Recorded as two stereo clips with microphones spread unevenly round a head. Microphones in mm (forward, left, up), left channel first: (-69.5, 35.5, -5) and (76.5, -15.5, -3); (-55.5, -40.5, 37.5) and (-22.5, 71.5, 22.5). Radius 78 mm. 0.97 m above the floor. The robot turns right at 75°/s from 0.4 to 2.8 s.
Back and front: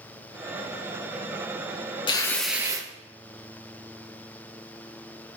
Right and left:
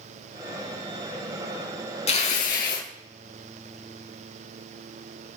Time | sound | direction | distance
2.1 | tearing paper | 135° right | 4.5 m